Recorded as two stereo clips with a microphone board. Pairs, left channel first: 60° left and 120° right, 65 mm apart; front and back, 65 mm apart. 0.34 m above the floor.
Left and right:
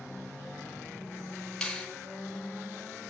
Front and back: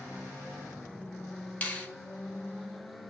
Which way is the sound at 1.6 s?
Straight ahead.